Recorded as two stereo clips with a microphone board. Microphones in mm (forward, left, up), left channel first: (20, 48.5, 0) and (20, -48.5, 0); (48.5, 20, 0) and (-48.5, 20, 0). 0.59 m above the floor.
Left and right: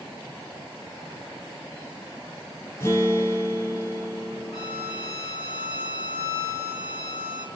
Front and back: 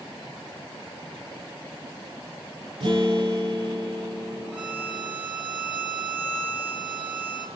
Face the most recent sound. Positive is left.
turn(degrees=105)